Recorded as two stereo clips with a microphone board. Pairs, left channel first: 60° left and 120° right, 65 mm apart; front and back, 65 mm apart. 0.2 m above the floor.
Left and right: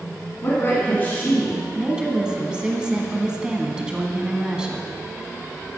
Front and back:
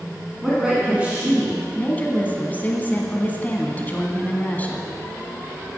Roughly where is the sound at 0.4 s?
Left.